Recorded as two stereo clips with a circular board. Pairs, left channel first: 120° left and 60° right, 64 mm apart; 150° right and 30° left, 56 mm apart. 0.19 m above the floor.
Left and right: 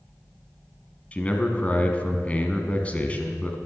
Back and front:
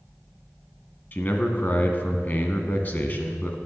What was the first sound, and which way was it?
A man speaking, 175° left.